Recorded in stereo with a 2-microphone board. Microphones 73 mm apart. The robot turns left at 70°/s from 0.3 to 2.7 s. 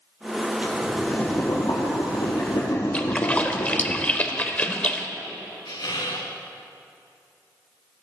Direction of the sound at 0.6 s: 160° right.